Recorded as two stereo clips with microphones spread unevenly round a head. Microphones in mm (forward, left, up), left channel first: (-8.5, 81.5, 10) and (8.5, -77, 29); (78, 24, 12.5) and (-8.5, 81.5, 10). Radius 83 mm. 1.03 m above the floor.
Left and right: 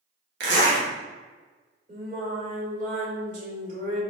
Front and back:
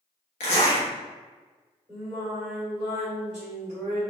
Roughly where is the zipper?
Ahead right.